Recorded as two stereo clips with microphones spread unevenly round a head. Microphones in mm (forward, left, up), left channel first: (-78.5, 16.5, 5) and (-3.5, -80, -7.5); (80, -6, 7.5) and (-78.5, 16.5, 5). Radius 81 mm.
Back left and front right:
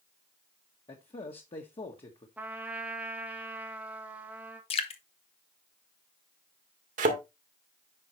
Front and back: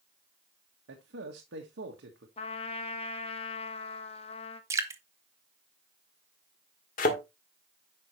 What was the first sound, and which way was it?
A man speaking, 165° left.